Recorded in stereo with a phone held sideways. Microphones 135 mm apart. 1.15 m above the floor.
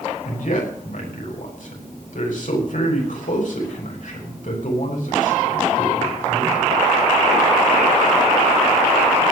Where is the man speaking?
70° left (ahead or behind), 6 m.